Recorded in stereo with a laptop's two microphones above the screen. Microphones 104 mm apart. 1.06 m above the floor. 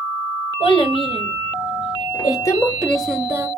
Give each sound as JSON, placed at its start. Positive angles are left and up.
{"t": 0.6, "sound": "a child speaking", "side_deg": 70, "distance_m": 1.3}